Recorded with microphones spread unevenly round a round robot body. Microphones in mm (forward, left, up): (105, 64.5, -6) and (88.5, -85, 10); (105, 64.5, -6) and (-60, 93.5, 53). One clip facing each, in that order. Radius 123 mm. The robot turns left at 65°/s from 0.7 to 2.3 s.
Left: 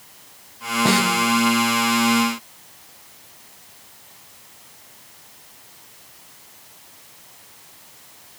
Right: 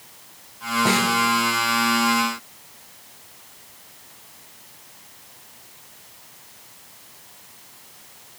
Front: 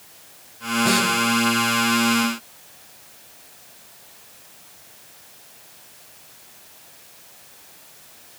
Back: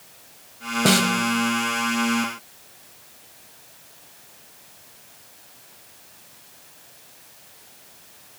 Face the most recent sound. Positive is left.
turn(degrees=65)